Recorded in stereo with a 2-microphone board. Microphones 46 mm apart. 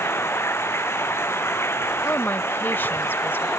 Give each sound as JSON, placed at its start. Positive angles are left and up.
{"t": 0.0, "sound": "running water", "side_deg": 60}
{"t": 2.0, "sound": "a woman speaking", "side_deg": 50}